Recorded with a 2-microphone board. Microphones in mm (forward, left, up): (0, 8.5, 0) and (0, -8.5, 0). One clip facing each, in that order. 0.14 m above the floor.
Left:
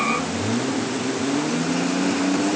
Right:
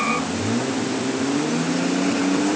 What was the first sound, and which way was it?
Only background noise.